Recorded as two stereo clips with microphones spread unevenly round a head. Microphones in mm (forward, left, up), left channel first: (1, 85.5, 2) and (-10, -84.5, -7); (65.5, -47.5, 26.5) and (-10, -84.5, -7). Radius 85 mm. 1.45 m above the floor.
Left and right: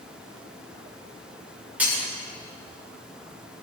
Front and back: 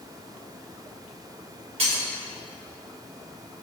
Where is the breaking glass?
175° right, 3 m.